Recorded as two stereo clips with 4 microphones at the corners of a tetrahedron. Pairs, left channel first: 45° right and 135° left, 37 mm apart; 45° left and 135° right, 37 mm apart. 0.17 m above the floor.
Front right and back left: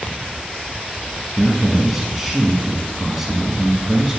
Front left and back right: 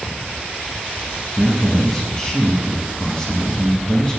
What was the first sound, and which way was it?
A man speaking, 70° left.